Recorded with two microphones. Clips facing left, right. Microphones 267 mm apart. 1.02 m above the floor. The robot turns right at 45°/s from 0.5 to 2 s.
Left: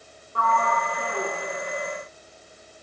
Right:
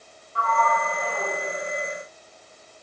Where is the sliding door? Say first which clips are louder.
Even; 60° left, 1.0 m; by 1.3 s 100° left, 1.0 m.